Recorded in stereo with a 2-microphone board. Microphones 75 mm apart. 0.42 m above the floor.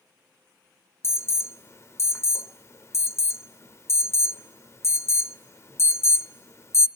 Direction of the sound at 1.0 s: 40° left (ahead or behind).